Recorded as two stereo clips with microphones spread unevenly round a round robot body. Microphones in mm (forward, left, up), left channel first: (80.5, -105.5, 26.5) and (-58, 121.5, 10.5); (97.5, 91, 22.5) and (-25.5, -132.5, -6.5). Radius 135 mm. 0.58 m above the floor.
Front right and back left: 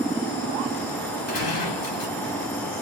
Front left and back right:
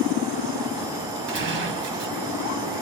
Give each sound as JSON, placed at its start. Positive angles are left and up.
{"t": 1.3, "sound": "a gunshot", "azimuth_deg": -90, "distance_m": 1.9}